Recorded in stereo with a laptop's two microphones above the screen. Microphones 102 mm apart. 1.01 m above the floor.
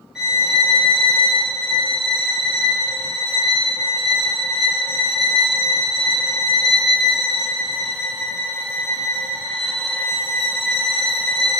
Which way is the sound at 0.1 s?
5° right (ahead or behind).